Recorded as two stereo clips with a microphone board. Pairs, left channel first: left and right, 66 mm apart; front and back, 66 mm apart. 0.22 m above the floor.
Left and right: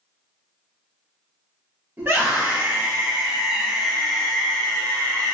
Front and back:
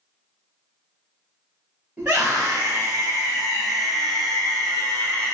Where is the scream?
125° right, 1.7 m; by 5.3 s 55° left, 1.4 m.